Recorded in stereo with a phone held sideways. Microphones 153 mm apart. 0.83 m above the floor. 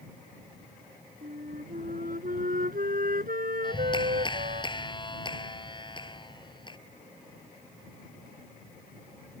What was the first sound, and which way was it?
A flute, 60° right (ahead or behind).